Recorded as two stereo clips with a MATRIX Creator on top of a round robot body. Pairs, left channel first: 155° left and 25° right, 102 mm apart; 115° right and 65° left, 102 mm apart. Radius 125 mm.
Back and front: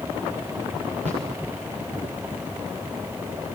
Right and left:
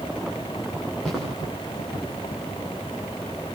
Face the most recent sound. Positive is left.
turn(degrees=-25)